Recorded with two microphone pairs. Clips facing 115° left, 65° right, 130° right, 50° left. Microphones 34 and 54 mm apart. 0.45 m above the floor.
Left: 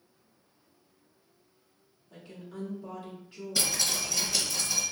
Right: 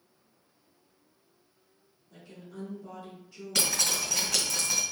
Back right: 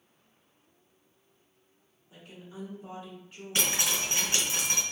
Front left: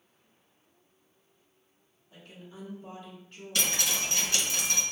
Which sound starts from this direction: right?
Dripping, at 3.5 s.